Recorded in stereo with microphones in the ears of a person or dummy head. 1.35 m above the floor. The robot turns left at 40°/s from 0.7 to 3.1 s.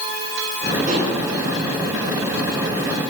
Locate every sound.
0.9 s dishes clattering: 45° right (ahead or behind), 9 m; by 1.2 s 60° right (ahead or behind), 9 m